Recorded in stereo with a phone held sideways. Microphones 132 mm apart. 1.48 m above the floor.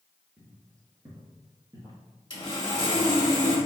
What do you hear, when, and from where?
0.4 s footsteps: 20° right (ahead or behind), 1.8 m; by 2.0 s 35° right (ahead or behind), 1.7 m
2.3 s sawing: 35° left (ahead or behind), 1.6 m